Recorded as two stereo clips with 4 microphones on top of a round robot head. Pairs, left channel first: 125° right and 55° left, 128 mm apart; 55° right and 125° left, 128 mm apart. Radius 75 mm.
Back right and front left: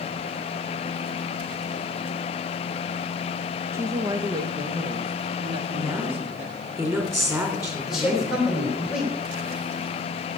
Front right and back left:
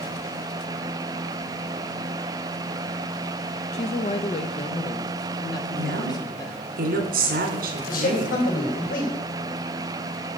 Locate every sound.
3.7 s a woman speaking: 20° right, 0.7 m; by 6.6 s 10° left, 2 m
5.8 s a woman speaking: 125° left, 3 m
7.9 s a man speaking: 35° right, 4 m